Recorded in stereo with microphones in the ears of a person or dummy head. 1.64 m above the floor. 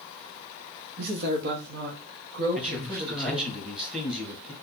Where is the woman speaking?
60° right (ahead or behind), 0.9 m; by 3.5 s 55° right (ahead or behind), 2.5 m.